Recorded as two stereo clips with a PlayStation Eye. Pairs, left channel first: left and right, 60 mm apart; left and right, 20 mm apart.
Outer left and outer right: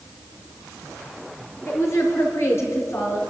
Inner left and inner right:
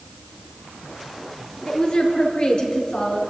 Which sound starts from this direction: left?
A woman speaking, at 1.7 s.